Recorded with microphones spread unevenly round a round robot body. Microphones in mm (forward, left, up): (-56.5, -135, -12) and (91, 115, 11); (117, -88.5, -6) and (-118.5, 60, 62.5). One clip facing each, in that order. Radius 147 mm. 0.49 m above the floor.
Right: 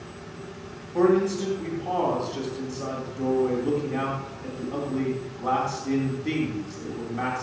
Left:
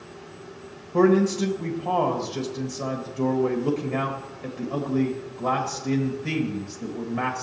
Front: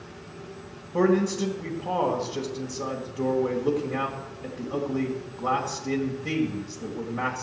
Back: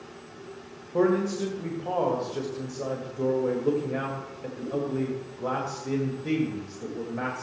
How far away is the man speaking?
About 2 m.